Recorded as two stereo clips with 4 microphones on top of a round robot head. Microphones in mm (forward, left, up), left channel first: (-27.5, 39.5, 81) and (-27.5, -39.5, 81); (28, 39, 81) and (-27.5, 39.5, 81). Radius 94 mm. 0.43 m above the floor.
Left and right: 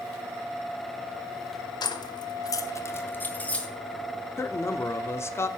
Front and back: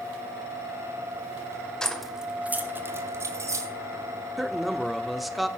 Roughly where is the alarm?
I don't hear an alarm.